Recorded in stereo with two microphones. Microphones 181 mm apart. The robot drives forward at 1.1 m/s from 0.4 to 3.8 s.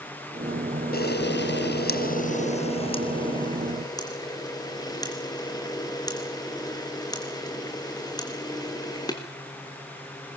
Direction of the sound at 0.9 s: 60° left (ahead or behind).